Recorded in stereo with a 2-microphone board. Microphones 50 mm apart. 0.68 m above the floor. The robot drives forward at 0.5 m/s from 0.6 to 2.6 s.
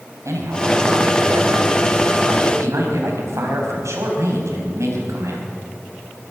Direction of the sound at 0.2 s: 80° right.